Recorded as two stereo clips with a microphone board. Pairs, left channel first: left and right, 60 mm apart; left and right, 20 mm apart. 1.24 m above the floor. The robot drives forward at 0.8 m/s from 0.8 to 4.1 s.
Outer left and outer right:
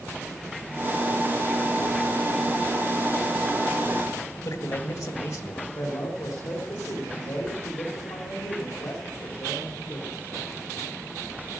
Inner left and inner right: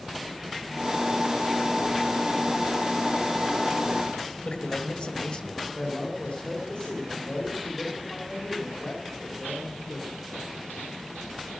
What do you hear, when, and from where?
4.4 s a man speaking: 65° left (ahead or behind), 1.5 m
5.8 s a man speaking: 85° left, 3 m